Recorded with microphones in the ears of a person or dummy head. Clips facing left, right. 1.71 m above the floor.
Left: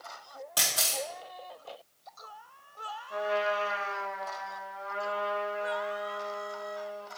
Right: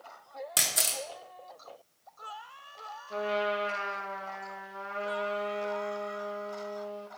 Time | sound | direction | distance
0.6 | a camera shutter | 20° right (ahead or behind) | 1.0 m
3.1 | a trumpet | 40° right (ahead or behind) | 1.5 m